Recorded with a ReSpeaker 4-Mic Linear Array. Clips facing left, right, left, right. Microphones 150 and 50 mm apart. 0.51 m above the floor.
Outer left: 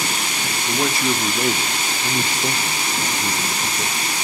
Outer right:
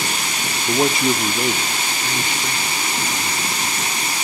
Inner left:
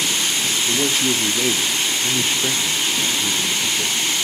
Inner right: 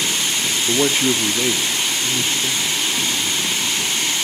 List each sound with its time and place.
0.7 s a man speaking: 35° right (ahead or behind), 0.8 m; by 4.2 s 65° left (ahead or behind), 1.7 m